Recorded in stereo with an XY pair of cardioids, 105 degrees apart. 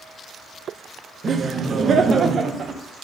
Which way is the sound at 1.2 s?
40° right.